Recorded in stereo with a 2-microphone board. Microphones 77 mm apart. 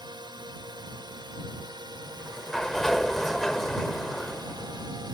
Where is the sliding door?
5° left (ahead or behind).